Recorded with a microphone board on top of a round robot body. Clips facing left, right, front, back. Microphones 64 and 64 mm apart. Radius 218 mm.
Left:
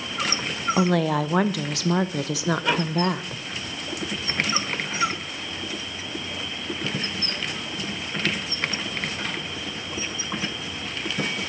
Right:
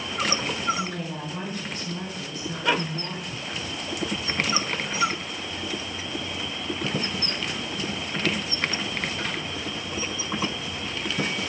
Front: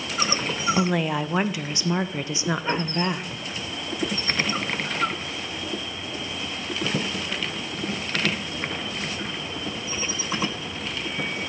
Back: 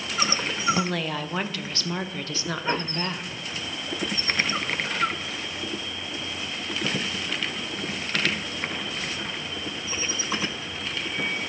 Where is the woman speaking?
75° left, 0.5 m.